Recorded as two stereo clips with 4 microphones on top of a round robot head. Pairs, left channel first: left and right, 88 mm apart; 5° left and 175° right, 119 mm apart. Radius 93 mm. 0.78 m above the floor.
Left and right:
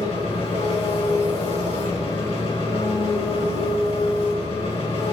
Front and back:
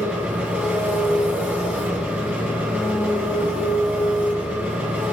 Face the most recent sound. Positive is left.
turn(degrees=110)